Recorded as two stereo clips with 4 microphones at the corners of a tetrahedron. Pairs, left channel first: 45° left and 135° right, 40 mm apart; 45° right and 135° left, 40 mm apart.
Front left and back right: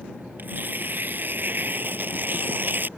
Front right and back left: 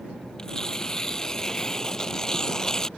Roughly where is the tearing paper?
Behind right.